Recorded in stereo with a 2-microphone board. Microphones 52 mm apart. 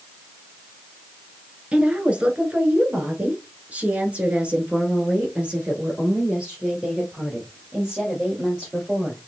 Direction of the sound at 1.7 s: 20° right (ahead or behind).